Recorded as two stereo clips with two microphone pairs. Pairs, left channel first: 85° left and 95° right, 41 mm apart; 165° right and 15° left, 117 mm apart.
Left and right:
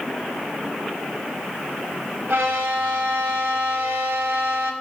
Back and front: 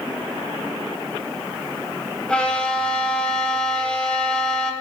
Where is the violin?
85° right, 0.6 m.